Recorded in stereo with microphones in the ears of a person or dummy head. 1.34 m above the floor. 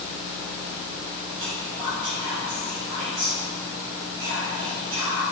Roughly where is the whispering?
Right.